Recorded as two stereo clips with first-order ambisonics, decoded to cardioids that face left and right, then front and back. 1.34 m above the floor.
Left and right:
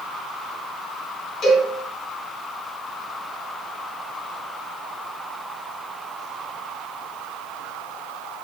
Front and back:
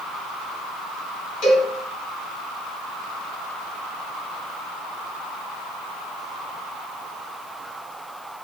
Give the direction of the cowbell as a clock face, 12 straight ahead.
11 o'clock.